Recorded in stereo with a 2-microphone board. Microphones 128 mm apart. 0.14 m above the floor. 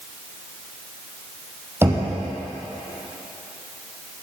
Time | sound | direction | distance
1.8 | knocking | 20° right (ahead or behind) | 3 m